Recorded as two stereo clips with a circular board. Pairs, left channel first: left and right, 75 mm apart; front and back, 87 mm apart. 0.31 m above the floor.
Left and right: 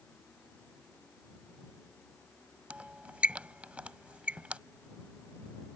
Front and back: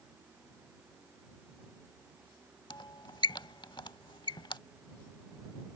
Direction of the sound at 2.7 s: 20° right.